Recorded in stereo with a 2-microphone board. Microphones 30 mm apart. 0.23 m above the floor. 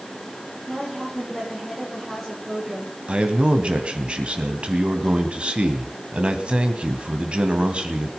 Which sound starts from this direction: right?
A man speaking, at 3.1 s.